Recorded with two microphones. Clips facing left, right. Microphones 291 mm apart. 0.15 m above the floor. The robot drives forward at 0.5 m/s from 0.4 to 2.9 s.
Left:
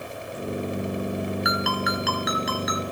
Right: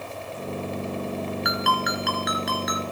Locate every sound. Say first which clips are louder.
1.4 s a ringtone: left 1 dB; centre (ahead or behind), 1.5 m